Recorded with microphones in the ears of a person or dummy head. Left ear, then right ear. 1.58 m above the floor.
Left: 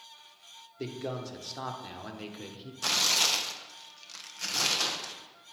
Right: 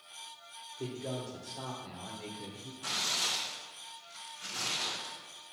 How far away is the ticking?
I don't hear ticking.